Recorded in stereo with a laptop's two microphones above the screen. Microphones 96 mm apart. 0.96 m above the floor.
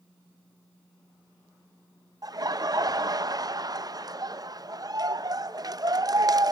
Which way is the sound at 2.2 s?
40° right (ahead or behind).